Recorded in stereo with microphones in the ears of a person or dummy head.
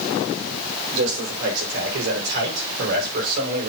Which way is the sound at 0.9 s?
70° right (ahead or behind).